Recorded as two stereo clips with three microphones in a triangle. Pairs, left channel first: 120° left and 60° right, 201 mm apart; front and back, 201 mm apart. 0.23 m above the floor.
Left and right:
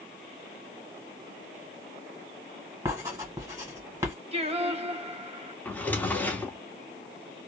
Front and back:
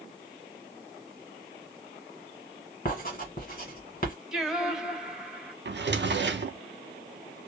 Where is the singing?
95° right, 0.6 m.